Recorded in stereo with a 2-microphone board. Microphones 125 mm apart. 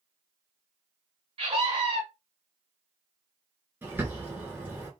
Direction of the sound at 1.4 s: 45° right (ahead or behind).